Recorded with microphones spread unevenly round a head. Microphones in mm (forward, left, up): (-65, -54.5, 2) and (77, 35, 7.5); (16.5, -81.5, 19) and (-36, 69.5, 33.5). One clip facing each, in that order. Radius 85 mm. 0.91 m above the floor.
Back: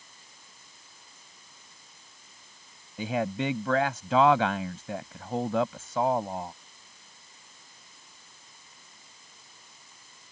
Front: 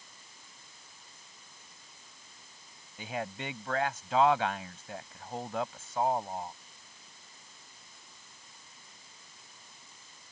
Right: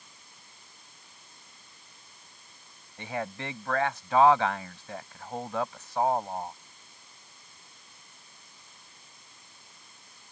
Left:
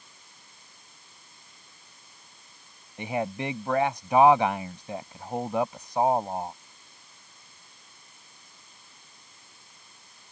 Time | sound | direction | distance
3.0 | a man speaking | 175° right | ?